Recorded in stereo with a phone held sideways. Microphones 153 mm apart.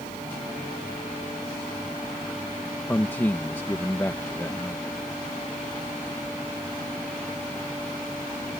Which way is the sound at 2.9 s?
15° left (ahead or behind).